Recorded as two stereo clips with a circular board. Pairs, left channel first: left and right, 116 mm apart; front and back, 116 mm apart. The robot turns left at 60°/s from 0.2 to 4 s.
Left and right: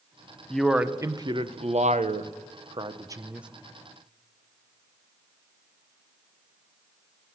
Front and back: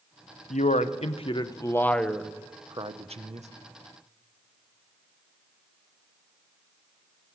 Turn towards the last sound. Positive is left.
turn(degrees=155)